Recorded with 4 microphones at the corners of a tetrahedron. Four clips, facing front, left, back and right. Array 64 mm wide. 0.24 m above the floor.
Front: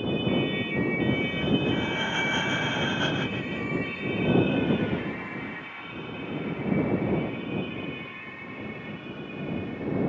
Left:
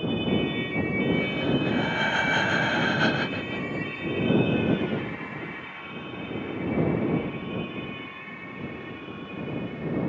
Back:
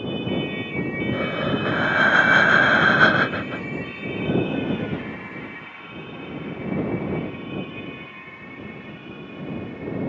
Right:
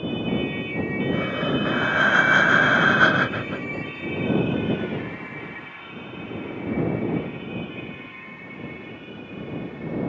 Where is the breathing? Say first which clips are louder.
Right 1 dB, back 2 dB; 150° right.